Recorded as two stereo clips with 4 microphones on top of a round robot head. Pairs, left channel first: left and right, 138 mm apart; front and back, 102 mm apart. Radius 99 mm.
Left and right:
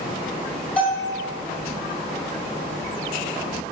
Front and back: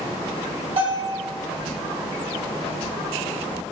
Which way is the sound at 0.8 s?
170° left.